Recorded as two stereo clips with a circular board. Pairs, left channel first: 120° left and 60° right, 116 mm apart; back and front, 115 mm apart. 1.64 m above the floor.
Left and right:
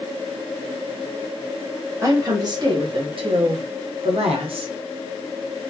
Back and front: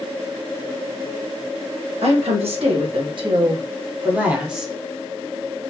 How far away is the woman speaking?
About 1.5 m.